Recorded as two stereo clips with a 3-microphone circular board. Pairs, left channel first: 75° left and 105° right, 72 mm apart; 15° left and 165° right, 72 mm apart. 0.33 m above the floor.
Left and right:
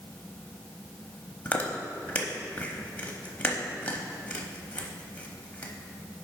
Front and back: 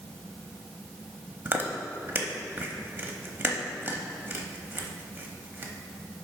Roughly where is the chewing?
Behind left.